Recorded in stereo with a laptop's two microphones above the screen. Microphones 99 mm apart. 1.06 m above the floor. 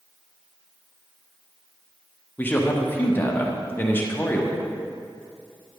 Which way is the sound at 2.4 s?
20° left (ahead or behind).